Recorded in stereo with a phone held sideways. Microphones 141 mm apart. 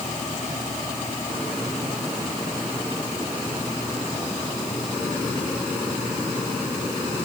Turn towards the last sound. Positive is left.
No sound to turn to.